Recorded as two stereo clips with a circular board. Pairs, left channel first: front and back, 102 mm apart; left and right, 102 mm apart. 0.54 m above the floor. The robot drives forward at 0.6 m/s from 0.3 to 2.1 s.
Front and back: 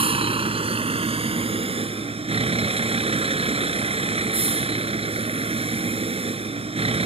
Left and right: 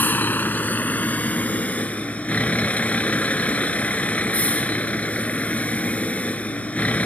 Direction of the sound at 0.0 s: 160° left.